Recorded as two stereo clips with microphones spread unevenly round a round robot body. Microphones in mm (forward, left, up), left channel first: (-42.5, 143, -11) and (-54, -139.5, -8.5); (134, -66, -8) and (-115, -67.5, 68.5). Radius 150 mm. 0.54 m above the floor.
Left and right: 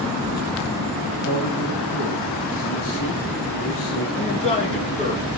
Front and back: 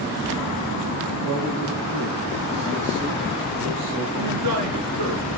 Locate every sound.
1.2 s a man speaking: 125° left, 4 m
4.1 s a man speaking: 155° left, 8.5 m